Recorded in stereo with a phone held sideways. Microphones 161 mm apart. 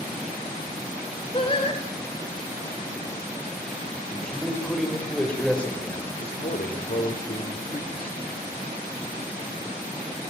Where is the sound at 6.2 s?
70° left (ahead or behind), 4.5 m.